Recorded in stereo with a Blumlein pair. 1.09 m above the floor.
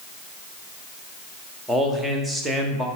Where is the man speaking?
5° right, 1.2 m.